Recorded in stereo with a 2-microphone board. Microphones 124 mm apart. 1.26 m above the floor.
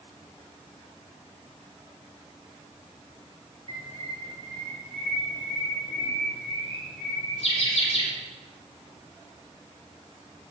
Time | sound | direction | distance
3.7 | a bird | 55° left (ahead or behind) | 3 m